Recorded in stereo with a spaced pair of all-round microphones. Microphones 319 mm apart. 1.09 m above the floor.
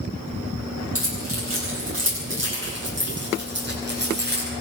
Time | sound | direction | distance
0.9 | keys jangling | 45° right (ahead or behind) | 9.5 m